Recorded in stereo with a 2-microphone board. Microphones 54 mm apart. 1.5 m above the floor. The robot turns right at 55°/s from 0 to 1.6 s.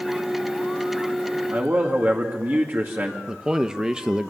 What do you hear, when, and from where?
1.5 s a man speaking: 45° right (ahead or behind), 2.5 m; by 3.2 s 40° right (ahead or behind), 2.5 m
3.3 s a man speaking: 15° right (ahead or behind), 1.1 m